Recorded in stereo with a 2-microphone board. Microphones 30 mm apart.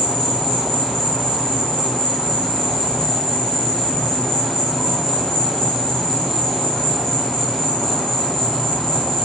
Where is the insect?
15° left (ahead or behind), 1.5 m.